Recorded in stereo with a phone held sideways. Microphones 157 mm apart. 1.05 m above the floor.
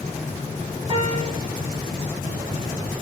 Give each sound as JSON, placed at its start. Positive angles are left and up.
{"t": 0.9, "sound": "a piano", "side_deg": -40, "distance_m": 1.9}